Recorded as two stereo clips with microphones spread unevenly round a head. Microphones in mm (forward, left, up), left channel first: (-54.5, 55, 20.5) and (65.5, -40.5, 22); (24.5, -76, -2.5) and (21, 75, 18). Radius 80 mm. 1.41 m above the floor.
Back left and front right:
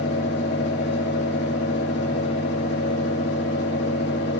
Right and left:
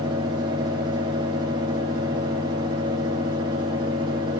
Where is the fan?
155° left, 3.5 m.